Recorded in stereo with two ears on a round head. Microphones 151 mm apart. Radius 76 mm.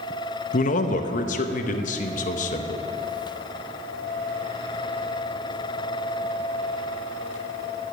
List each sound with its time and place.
0.5 s a man speaking: 45° left (ahead or behind), 0.9 m